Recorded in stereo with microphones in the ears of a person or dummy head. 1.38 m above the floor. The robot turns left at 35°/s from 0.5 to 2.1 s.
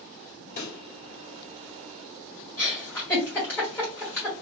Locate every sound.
0.6 s a pop: 50° left (ahead or behind), 1.1 m; by 0.8 s 60° left (ahead or behind), 1.1 m
2.6 s a giggle: 15° left (ahead or behind), 2.0 m